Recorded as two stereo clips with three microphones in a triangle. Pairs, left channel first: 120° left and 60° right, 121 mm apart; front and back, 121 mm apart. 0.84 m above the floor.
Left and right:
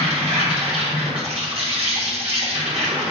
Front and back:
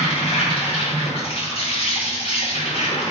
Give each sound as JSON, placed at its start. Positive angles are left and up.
{"t": 0.0, "sound": "an insect", "azimuth_deg": -30, "distance_m": 1.3}